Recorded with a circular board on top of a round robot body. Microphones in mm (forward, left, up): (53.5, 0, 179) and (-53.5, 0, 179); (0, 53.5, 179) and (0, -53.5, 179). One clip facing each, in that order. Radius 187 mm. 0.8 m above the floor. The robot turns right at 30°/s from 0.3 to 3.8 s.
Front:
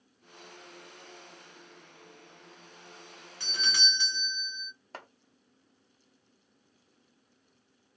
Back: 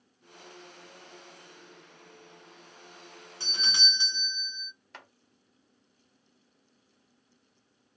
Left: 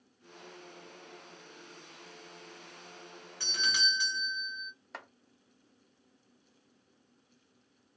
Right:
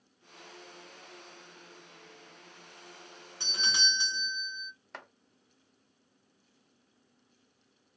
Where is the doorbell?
140° right, 1.4 m; by 4.7 s 130° right, 1.4 m.